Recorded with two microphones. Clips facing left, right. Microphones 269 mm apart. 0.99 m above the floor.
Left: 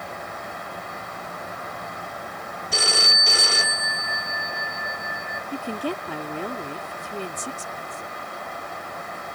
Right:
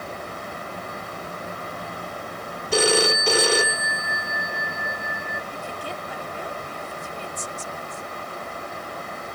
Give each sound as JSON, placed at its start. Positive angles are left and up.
{"t": 2.7, "sound": "a phone ringing", "side_deg": -80}
{"t": 5.5, "sound": "a woman speaking", "side_deg": 75}